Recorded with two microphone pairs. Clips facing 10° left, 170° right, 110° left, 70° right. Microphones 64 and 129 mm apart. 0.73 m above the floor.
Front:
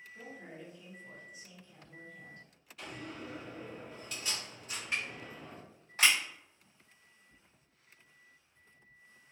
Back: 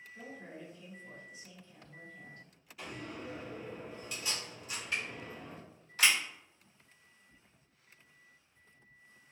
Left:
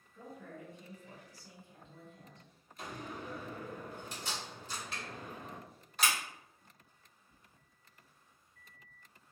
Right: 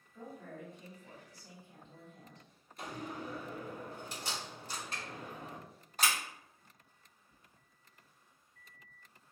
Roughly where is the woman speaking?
Right.